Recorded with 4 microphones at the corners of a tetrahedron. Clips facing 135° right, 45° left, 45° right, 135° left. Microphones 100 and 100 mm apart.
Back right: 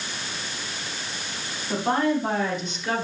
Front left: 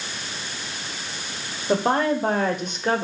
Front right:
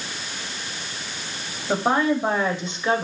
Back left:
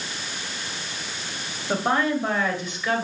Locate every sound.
1.7 s a woman speaking: 30° left, 2.5 m; by 3.0 s 10° left, 2 m